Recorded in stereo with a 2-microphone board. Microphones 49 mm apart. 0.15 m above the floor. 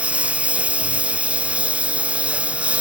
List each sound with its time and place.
0.0 s a lawn mower: 25° right (ahead or behind)